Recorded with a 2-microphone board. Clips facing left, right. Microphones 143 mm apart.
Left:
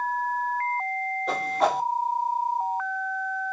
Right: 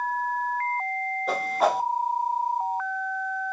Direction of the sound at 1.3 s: Centre (ahead or behind).